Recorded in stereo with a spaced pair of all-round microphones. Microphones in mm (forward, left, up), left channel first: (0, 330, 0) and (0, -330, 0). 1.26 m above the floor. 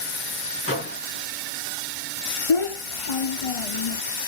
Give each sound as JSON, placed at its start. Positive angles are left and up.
{"t": 0.7, "sound": "a microwave", "side_deg": 20, "distance_m": 1.9}
{"t": 2.5, "sound": "a child speaking", "side_deg": 50, "distance_m": 0.8}